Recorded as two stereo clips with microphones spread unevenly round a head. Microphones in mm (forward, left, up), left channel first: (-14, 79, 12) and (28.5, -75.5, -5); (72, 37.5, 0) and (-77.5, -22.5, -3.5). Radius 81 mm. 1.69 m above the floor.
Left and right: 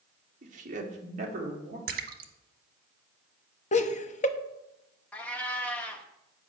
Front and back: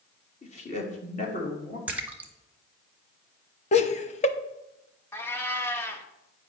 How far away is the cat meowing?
About 1.0 m.